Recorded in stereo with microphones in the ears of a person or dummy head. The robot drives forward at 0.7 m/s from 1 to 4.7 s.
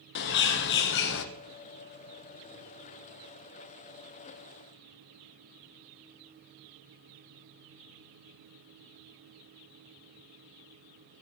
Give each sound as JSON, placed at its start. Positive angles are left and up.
{"t": 0.1, "sound": "a bird", "side_deg": 65, "distance_m": 0.9}